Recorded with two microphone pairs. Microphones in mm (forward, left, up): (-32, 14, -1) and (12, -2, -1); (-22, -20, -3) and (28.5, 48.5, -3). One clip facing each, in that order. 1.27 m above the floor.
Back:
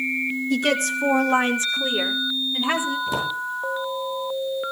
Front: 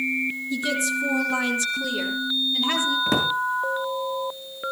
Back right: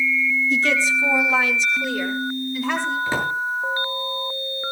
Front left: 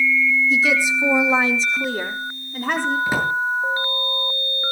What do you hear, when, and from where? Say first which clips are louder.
0.5 s a woman speaking: back 4 dB, front left 1 dB; 140° left, 1.8 m; by 3.0 s 90° left, 4 m
3.1 s a drawer: front 2 dB, front left 2 dB; 20° right, 8.5 m